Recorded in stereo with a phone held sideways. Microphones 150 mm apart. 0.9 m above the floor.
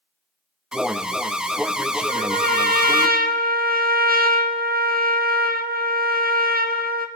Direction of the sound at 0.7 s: 5° right (ahead or behind).